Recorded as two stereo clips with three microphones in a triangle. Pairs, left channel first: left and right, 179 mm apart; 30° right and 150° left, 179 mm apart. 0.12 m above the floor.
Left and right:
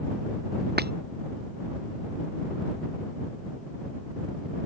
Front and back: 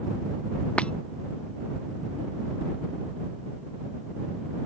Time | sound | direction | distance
0.8 | breaking glass | 115° right | ?